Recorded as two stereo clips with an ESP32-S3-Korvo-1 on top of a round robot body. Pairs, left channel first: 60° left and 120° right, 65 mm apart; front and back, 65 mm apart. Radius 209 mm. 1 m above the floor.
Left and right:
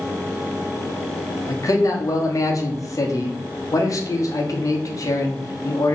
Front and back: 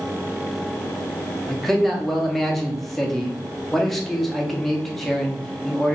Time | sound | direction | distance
1.5 | a man speaking | 85° left | 1.6 m